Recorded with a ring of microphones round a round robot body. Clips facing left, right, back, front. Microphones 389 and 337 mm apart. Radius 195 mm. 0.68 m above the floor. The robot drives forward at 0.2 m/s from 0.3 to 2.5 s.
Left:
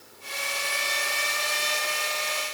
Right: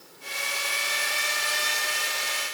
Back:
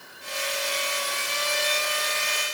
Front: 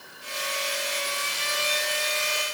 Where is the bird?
I don't hear a bird.